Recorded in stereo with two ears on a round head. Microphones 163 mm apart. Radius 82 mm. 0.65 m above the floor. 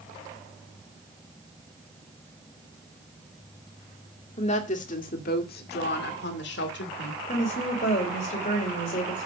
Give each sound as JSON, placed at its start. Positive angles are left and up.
{"t": 4.4, "sound": "a woman speaking", "side_deg": 35, "distance_m": 2.0}
{"t": 7.3, "sound": "a woman speaking", "side_deg": 40, "distance_m": 3.0}